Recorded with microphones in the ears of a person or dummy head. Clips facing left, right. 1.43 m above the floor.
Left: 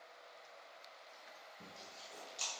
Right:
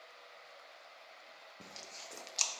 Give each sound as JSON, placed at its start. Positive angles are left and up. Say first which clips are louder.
{"t": 1.6, "sound": "chewing", "louder": "right 4 dB", "side_deg": -75, "distance_m": 0.7}